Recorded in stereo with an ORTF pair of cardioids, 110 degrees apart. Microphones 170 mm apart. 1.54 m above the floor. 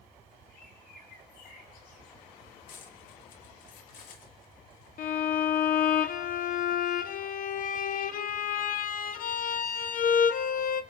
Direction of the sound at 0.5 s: 70° left.